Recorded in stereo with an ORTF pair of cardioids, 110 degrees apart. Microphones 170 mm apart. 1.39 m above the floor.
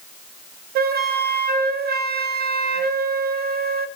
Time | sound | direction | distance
0.8 | a flute | 65° right | 0.6 m